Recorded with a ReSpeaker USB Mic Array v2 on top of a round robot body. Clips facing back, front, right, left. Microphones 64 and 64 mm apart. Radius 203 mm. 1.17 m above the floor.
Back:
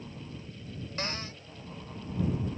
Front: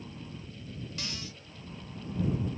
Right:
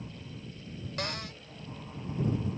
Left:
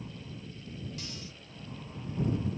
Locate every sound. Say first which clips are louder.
1.0 s a cupboard door: back 5 dB, right 8 dB; 125° right